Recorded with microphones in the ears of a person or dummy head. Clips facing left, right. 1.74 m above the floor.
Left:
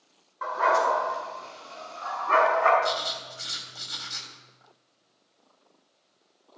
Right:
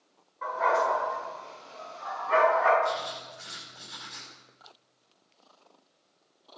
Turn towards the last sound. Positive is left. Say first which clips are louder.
# left 1 dB
turn(degrees=65)  # may be behind; listen again after turning